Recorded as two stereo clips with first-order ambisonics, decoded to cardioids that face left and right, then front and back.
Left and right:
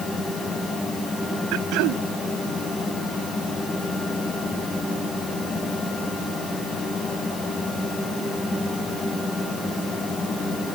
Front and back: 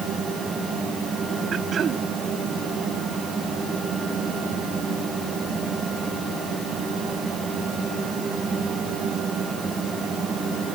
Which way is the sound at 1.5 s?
120° right.